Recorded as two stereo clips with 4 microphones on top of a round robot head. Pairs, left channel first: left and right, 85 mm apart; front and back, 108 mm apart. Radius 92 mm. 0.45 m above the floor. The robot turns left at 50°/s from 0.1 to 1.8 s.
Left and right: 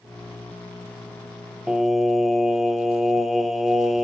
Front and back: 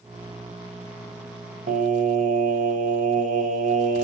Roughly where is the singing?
Behind.